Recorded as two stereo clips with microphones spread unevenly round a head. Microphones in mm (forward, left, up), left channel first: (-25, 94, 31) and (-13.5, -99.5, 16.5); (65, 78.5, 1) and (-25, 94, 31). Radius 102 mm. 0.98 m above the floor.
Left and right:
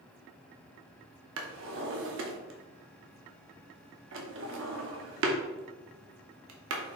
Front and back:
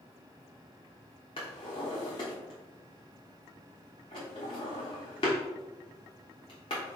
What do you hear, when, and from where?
1.4 s a drawer: 75° right, 0.7 m